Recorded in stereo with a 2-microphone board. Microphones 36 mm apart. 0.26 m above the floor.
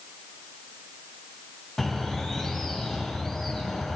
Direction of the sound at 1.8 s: 10° left (ahead or behind).